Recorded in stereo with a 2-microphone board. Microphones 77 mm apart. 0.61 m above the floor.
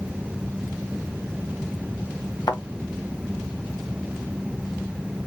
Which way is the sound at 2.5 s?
55° left (ahead or behind).